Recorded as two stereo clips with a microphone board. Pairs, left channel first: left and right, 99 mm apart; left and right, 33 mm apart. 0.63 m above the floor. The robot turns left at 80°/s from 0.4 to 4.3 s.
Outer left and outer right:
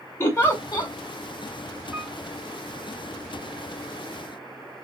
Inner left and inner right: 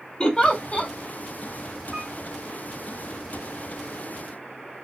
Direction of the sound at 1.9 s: 10° right (ahead or behind).